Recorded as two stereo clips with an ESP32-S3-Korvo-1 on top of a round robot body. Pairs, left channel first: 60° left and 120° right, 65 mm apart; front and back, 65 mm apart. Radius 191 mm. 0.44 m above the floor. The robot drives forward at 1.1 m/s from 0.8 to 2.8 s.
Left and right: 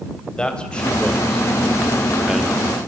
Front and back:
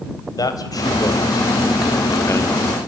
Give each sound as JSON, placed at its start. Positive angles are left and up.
{"t": 0.4, "sound": "a man speaking", "azimuth_deg": -15, "distance_m": 3.0}